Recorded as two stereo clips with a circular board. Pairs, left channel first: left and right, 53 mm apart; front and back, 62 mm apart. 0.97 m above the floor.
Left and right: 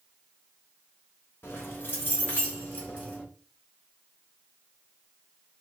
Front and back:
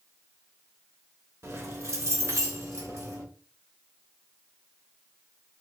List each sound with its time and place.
1.4 s keys jangling: 135° left, 1.0 m; by 3.2 s 155° left, 2 m